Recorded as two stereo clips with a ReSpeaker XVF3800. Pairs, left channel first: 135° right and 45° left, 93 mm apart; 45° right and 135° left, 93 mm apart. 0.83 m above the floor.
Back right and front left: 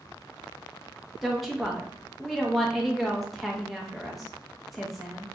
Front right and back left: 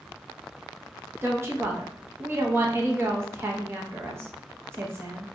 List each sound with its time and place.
1.2 s a woman speaking: 135° left, 0.8 m